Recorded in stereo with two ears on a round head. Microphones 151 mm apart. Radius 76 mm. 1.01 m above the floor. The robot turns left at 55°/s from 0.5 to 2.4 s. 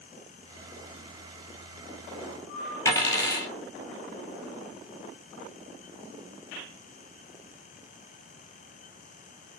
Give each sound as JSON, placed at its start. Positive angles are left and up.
{"t": 2.9, "sound": "a dropped coin", "side_deg": 20, "distance_m": 1.4}